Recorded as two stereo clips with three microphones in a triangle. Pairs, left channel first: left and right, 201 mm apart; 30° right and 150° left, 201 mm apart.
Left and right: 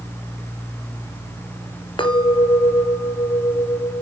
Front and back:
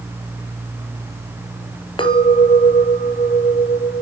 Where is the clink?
30° left, 1.4 m.